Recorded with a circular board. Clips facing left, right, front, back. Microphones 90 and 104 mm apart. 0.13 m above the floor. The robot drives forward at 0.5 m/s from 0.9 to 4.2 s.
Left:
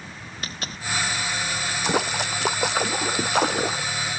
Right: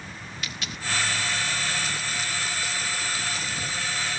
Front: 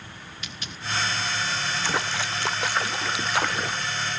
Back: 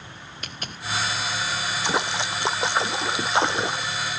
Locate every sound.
0.4 s a dropped coin: 140° left
1.8 s a splash: 110° left; by 4.0 s 115° left